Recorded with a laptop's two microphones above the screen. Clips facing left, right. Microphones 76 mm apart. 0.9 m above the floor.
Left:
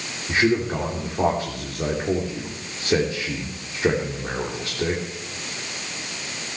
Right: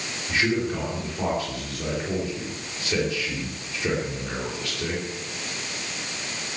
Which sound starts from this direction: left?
A man speaking, at 0.3 s.